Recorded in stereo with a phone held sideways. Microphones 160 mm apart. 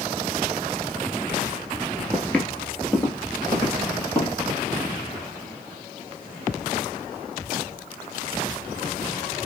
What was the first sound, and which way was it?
Footsteps, 5° left (ahead or behind).